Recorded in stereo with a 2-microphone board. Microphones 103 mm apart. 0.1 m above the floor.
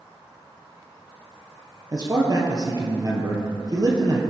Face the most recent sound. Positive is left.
turn(degrees=-40)  # may be behind; listen again after turning